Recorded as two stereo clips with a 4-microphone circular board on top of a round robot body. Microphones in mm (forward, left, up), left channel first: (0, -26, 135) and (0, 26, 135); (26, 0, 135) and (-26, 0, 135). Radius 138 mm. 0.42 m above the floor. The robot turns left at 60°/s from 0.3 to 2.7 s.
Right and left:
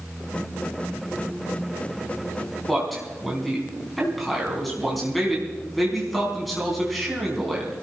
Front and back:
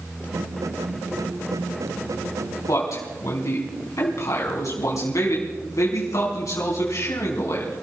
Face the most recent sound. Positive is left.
turn(degrees=0)